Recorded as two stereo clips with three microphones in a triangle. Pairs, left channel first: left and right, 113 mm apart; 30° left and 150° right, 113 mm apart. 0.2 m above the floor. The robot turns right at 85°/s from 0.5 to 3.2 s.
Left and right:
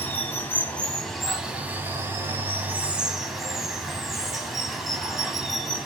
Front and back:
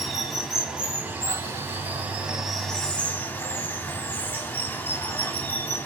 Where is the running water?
125° left, 0.8 m; by 5.9 s 5° right, 0.8 m.